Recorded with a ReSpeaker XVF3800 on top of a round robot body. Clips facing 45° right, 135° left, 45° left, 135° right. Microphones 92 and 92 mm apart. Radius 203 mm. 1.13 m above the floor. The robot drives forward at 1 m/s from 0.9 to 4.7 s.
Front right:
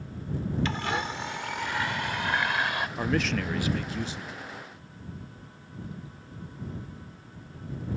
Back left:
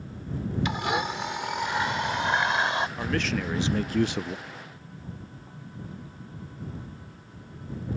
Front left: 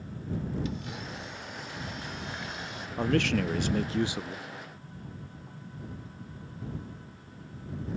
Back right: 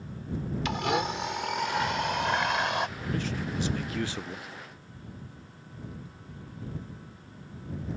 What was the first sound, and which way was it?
A blender, 150° right.